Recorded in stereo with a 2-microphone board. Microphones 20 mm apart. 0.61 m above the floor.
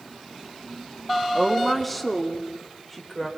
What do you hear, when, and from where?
1.4 s a woman speaking: centre (ahead or behind), 1.2 m; by 3.3 s 5° right (ahead or behind), 3 m